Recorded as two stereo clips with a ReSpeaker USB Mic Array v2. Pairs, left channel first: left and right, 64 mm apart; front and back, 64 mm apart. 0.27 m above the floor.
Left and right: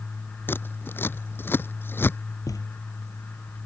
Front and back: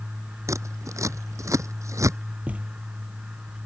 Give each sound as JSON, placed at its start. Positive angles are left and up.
{"t": 0.5, "sound": "scissors", "azimuth_deg": 145}
{"t": 2.5, "sound": "a thud", "azimuth_deg": 115}